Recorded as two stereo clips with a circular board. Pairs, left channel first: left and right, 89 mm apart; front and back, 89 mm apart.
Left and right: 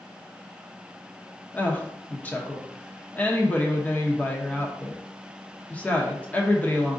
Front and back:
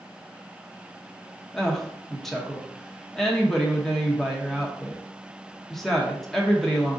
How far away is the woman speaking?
About 0.8 m.